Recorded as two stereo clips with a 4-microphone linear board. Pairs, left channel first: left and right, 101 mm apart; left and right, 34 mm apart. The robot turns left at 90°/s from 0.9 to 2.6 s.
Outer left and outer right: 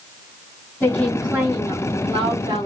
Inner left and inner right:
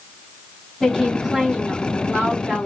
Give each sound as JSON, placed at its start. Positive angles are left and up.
{"t": 0.8, "sound": "a woman speaking", "azimuth_deg": 20, "distance_m": 2.5}